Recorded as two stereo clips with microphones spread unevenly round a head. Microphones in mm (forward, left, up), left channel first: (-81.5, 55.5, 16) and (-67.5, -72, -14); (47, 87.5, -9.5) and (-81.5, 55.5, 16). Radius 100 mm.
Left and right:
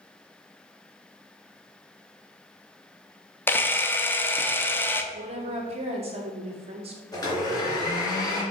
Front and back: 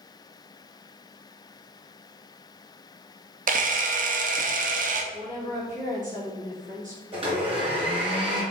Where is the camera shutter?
175° left, 0.9 m.